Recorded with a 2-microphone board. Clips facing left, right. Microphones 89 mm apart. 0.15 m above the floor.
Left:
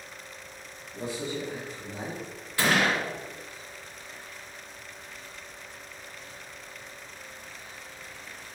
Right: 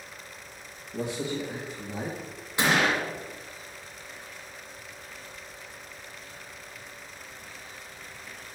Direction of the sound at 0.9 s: 65° right (ahead or behind).